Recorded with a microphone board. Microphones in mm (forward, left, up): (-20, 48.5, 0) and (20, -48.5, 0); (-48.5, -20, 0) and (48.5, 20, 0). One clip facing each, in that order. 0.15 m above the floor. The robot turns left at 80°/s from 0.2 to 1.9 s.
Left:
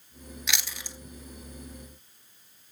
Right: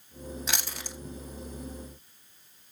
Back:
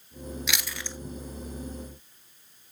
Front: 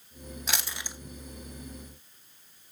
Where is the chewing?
20° right, 0.6 m; by 1.0 s 60° right, 0.6 m.